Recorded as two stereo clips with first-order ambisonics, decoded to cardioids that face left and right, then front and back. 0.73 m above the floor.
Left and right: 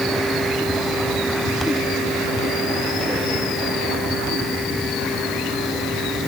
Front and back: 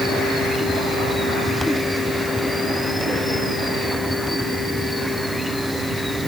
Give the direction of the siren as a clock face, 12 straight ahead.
I don't hear a siren.